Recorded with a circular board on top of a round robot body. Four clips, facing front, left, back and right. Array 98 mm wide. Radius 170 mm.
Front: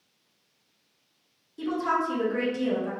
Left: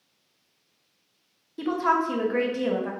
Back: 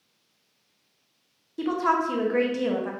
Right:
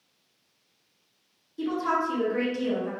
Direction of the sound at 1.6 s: 140° left.